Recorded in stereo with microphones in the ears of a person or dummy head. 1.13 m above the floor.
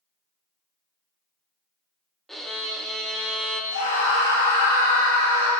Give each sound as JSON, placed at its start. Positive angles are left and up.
{"t": 2.3, "sound": "a violin", "side_deg": 0, "distance_m": 0.5}
{"t": 3.7, "sound": "a scream", "side_deg": 60, "distance_m": 2.5}